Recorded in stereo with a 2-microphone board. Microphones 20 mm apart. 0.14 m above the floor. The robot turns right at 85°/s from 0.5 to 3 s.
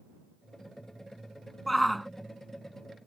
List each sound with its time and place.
1.7 s a shout: 10° left (ahead or behind); by 2.1 s centre (ahead or behind)